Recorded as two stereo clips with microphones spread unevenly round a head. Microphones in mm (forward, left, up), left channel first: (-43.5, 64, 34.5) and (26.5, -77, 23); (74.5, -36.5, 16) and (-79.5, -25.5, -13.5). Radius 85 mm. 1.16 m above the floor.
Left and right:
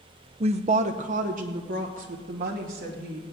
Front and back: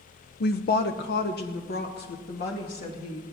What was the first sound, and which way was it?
A woman speaking, 20° right.